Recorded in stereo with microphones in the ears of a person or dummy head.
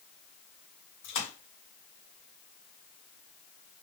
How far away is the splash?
About 2.0 m.